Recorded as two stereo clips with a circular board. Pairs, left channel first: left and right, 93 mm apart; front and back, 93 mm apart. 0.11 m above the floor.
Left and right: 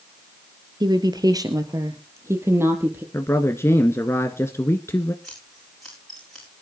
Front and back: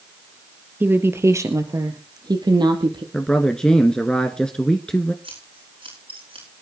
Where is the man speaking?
75° left, 1.5 m.